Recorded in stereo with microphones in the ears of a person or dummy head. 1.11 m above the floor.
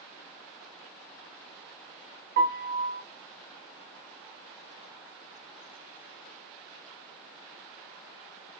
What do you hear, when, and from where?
2.4 s a piano: 40° right (ahead or behind), 0.7 m